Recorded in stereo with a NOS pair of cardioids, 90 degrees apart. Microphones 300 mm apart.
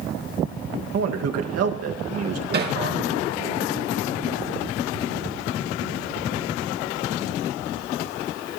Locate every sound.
0.9 s a man speaking: 60° right, 1.8 m
2.5 s hammering: 35° right, 4.5 m